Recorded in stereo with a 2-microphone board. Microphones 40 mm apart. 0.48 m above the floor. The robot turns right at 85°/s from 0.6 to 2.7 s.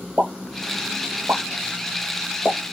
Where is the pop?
60° right (ahead or behind), 1.1 m; by 2.6 s 50° left (ahead or behind), 1.1 m.